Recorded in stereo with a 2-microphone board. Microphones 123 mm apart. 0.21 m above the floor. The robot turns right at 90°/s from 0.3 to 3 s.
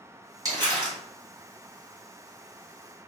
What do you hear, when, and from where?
0.5 s crumpling: 135° right, 1.7 m; by 1.0 s 85° right, 1.7 m